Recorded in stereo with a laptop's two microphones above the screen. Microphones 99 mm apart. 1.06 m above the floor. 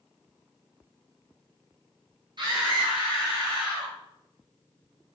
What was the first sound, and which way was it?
A scream, 50° right (ahead or behind).